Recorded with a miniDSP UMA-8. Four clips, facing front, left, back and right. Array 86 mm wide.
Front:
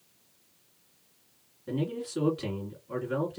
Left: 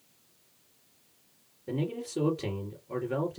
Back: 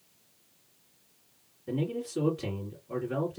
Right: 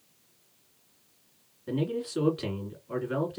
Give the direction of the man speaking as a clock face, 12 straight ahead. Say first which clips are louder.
Right 3 dB, even; 2 o'clock.